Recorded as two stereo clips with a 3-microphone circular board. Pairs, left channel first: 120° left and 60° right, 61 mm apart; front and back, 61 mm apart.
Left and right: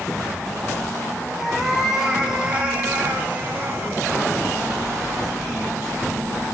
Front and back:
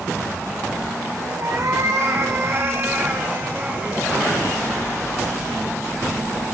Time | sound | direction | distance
1.4 | a cat meowing | 150° right | 2.5 m